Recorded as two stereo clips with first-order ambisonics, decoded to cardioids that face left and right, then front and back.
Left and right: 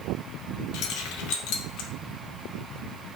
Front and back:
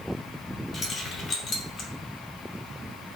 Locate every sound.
0.7 s keys jangling: 60° left, 0.7 m